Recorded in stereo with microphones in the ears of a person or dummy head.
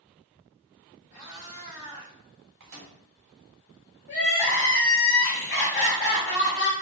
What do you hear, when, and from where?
1.1 s a cat meowing: 55° left (ahead or behind), 1.2 m; by 2.1 s 65° left (ahead or behind), 1.9 m
2.6 s a microwave: 50° right (ahead or behind), 0.9 m
4.1 s crying: 50° left (ahead or behind), 1.1 m